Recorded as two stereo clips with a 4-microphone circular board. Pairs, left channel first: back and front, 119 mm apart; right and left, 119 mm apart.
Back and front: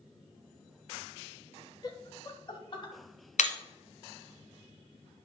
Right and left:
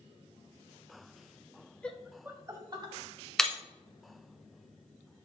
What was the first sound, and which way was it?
Laughter, 160° right.